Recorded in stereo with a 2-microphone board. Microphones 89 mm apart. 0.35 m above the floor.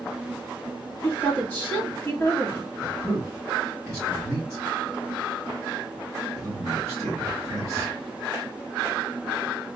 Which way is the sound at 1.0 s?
15° left (ahead or behind).